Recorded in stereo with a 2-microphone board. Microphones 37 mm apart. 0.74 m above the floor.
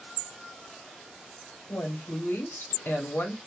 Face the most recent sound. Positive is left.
turn(degrees=75)  # may be behind; listen again after turning